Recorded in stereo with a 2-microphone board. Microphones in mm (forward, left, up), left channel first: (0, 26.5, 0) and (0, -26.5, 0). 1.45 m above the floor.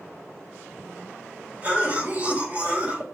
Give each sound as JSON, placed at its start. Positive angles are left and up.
{"t": 1.6, "sound": "a cough", "side_deg": -25, "distance_m": 2.0}